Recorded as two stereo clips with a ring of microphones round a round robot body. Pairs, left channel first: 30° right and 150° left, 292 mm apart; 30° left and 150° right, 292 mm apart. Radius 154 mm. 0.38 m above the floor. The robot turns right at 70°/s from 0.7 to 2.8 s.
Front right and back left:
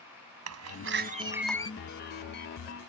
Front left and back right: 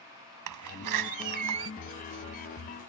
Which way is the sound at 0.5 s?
175° right.